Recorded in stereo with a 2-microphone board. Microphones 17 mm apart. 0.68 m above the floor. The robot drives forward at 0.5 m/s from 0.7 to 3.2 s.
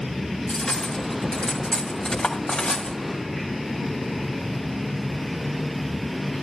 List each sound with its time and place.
0.5 s cutlery clinking: 70° left (ahead or behind), 2.5 m; by 3.0 s 80° left, 2 m